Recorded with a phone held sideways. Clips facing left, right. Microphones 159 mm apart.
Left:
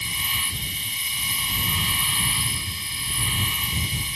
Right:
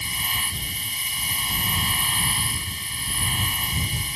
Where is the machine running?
50° right (ahead or behind).